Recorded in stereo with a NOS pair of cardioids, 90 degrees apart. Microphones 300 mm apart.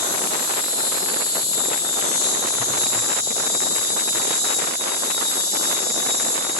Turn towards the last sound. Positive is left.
turn(degrees=35)